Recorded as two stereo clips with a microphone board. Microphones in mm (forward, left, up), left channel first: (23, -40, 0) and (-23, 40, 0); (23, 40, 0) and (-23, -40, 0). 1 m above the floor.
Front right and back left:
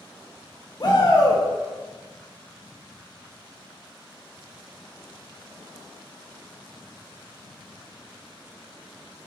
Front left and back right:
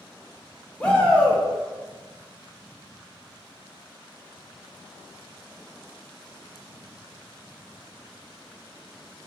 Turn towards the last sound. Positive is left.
turn(degrees=-20)